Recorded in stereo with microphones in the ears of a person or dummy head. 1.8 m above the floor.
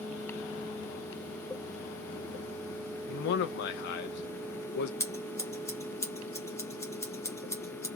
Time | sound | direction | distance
3.1 | a man speaking | 65° left (ahead or behind) | 0.7 m
5.0 | scissors | 15° left (ahead or behind) | 0.9 m